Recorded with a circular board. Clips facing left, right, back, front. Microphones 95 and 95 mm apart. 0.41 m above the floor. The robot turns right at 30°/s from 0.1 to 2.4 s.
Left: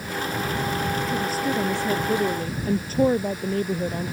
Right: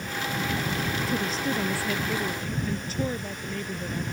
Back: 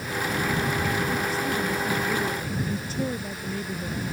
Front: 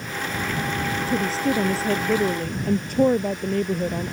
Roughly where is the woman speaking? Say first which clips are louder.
Left 3 dB, front 4 dB; ahead.